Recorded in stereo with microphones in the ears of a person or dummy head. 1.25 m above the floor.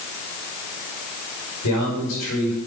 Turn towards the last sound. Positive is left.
turn(degrees=85)